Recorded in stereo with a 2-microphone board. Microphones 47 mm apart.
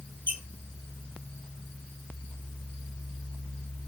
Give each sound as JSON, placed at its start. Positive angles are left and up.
{"t": 0.3, "sound": "a squeak", "side_deg": -50, "distance_m": 2.5}